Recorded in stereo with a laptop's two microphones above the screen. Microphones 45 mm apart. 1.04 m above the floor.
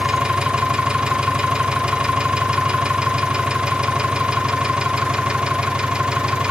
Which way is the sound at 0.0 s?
15° right (ahead or behind).